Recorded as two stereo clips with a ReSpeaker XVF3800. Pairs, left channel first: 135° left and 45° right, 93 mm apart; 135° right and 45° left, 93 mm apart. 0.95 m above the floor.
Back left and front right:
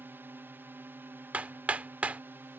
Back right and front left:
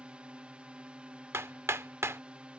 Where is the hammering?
15° left.